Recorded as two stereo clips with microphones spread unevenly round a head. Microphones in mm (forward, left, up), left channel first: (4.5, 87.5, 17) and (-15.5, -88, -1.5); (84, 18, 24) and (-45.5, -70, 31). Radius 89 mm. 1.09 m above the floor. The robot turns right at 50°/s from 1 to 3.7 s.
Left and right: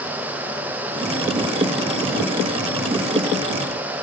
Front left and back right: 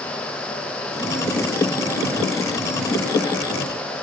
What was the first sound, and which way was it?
Only background noise.